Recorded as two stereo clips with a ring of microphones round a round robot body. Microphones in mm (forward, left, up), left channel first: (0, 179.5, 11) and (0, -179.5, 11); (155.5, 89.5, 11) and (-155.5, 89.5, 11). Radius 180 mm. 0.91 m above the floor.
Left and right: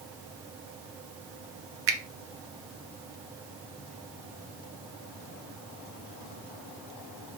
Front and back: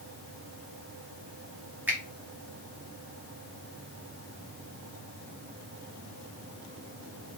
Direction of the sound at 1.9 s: 100° right.